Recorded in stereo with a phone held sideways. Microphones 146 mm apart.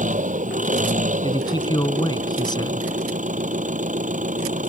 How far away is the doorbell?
I don't hear a doorbell.